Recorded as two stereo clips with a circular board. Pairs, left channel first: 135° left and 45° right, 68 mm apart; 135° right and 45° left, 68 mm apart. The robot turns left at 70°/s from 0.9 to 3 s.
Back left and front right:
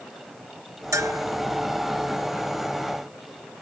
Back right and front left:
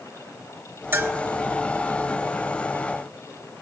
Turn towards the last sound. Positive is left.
turn(degrees=-155)